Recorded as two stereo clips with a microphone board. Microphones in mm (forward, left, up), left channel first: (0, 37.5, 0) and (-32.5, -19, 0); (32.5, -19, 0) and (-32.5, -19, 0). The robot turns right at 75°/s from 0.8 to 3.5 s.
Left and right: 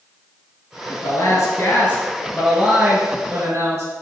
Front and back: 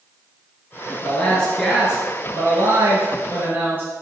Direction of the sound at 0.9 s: 30° left.